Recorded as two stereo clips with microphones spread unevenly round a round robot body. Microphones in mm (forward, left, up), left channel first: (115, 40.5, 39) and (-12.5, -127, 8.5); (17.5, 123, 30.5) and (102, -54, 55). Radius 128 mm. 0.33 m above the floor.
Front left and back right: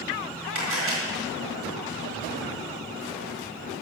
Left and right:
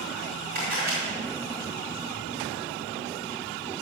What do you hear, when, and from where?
0.6 s a camera shutter: 120° right, 5 m